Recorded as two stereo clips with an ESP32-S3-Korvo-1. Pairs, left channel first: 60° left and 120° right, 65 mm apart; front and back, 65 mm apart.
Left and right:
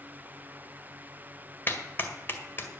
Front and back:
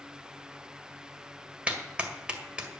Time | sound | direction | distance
1.7 | a clap | 110° left | 1.8 m